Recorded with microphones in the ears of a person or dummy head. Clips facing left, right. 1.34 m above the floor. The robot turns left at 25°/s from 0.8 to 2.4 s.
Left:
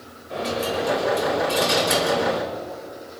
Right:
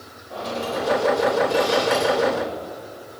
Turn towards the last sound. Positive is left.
turn(degrees=110)